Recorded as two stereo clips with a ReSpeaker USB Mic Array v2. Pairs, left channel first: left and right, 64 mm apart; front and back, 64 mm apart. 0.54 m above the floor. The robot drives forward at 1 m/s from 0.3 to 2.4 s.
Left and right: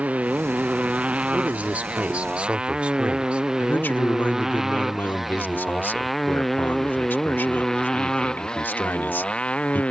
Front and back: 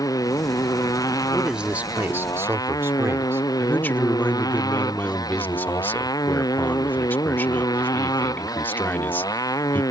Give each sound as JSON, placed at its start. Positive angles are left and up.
{"t": 0.0, "sound": "a motorcycle", "azimuth_deg": -20}
{"t": 1.3, "sound": "a man speaking", "azimuth_deg": -100}
{"t": 3.6, "sound": "a man speaking", "azimuth_deg": 45}